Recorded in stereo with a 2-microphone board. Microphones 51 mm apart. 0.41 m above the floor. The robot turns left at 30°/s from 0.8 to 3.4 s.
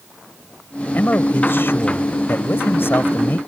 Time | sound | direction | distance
0.9 | a man speaking | 130° left | ?